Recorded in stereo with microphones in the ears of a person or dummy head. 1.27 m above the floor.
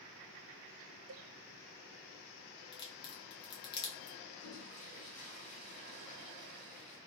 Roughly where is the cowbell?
Right.